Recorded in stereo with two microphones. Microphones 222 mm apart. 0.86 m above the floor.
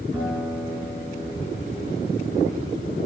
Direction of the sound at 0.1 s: 5° right (ahead or behind).